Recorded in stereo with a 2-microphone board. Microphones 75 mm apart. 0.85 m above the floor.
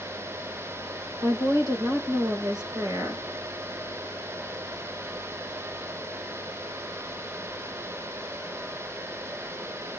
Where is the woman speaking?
70° right (ahead or behind), 3.5 m.